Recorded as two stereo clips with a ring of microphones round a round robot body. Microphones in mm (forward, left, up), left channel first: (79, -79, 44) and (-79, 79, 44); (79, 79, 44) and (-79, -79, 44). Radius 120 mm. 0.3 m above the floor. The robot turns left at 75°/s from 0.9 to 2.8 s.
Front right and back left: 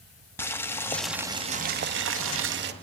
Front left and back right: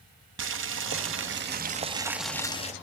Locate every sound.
0.4 s boiling: 125° right, 1.4 m; by 2.7 s 100° left, 1.4 m